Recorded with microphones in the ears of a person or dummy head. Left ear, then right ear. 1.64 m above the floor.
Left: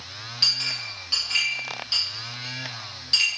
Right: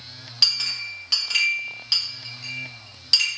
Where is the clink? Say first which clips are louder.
Right 2 dB; 15° right (ahead or behind), 2.0 m.